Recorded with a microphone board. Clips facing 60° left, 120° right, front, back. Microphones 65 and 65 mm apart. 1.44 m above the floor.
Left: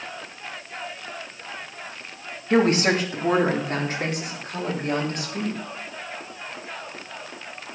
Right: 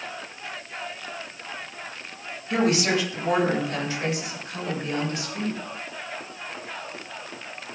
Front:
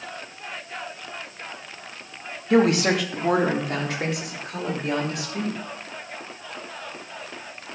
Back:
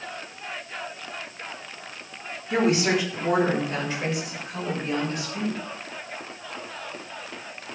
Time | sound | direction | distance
2.5 | a woman speaking | 10° left | 2 m